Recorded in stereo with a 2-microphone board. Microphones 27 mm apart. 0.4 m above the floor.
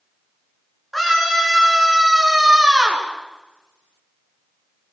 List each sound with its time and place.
0.9 s a scream: 10° left (ahead or behind), 7 m; by 3.1 s 20° right (ahead or behind), 5.5 m